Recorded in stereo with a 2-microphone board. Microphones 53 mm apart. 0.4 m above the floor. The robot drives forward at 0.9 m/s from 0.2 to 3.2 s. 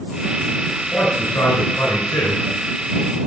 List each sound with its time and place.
0.7 s a man speaking: 60° left (ahead or behind), 6.5 m; by 2.4 s 70° left (ahead or behind), 6 m